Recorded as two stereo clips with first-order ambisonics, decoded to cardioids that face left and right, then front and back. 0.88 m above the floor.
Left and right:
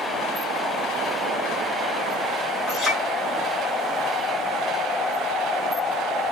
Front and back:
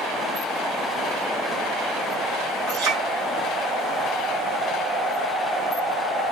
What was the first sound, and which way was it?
A clink, 165° left.